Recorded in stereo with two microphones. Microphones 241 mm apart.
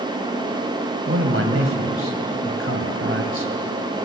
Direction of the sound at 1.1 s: 65° right (ahead or behind).